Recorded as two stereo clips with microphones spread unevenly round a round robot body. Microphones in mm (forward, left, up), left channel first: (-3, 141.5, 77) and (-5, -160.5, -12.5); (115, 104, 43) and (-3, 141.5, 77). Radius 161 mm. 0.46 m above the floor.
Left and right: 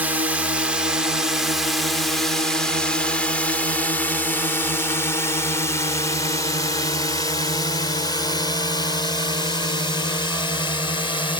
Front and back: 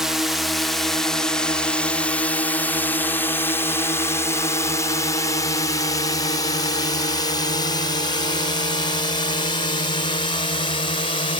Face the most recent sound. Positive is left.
turn(degrees=5)